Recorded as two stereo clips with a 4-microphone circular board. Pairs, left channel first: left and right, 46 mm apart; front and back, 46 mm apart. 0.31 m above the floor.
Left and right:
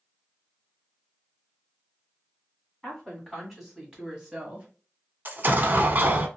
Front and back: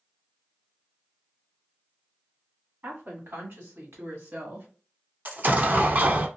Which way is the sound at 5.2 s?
135° right.